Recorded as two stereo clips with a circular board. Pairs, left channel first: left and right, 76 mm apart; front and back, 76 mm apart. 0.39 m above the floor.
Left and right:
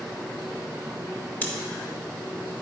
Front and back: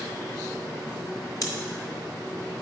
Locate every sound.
1.4 s scissors: 25° left, 1.1 m